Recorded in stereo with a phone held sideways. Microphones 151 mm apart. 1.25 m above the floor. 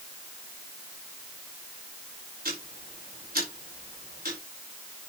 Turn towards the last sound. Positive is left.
turn(degrees=-80)